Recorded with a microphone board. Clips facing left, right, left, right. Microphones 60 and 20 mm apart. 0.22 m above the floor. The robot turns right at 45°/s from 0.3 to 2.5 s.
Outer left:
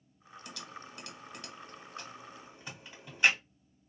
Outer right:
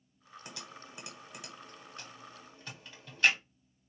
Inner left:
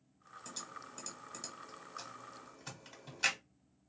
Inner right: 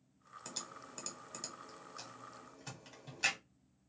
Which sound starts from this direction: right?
Typing on a keyboard, at 0.5 s.